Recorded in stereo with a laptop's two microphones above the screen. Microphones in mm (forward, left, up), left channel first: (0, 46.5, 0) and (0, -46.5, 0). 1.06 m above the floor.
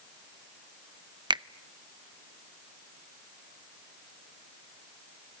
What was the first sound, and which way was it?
A finger snap, 55° right (ahead or behind).